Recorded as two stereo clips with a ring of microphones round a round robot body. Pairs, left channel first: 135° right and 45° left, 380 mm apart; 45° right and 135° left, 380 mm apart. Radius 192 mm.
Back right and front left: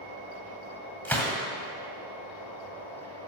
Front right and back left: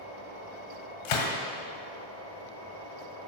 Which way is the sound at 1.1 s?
50° right.